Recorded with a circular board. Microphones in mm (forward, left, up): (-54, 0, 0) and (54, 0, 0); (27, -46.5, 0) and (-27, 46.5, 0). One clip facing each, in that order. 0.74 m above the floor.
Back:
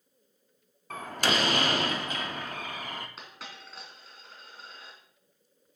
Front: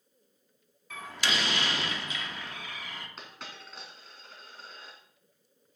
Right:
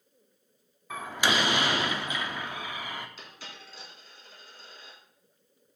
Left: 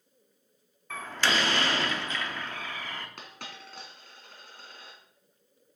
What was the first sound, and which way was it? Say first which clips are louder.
A door slam: back 4 dB, right 1 dB; 135° right.